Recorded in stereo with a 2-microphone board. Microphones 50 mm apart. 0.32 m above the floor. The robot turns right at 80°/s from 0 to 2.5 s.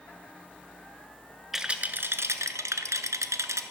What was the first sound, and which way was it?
A rattle, 175° right.